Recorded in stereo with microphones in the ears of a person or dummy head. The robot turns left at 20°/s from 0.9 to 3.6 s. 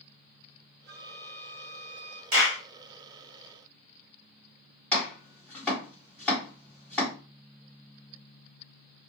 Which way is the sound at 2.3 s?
40° right (ahead or behind).